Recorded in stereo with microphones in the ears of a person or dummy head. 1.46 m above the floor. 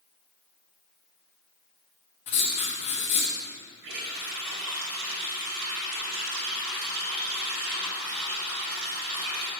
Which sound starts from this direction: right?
A running tap, at 3.8 s.